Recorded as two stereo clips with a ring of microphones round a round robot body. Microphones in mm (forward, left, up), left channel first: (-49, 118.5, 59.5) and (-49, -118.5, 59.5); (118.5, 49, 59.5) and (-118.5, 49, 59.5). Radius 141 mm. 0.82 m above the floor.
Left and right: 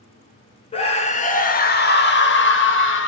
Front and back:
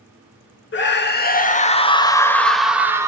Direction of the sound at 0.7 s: 25° left.